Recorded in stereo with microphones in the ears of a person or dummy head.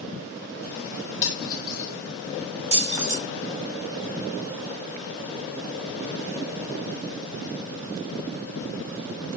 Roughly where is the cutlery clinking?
Left.